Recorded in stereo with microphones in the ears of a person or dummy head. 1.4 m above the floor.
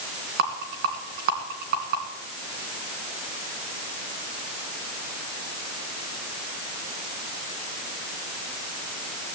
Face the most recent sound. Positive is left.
turn(degrees=-45)  # may be behind; listen again after turning